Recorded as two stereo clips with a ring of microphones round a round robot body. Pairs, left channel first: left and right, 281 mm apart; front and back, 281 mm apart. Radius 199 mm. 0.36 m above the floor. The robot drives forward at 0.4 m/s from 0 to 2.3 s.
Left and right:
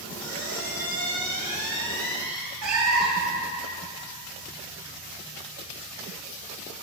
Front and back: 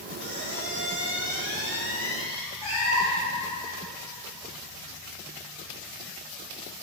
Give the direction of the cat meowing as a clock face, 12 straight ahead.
2 o'clock.